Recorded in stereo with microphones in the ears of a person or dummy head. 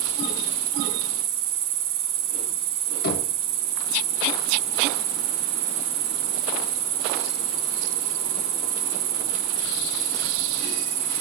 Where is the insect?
35° right (ahead or behind), 4.5 m.